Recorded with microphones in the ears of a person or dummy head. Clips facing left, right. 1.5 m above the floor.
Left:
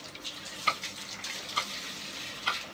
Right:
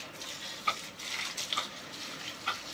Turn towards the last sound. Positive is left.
turn(degrees=25)  # may be behind; listen again after turning